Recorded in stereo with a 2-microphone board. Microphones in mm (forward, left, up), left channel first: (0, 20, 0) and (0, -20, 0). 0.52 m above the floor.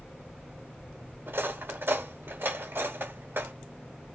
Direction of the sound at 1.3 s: 65° right (ahead or behind).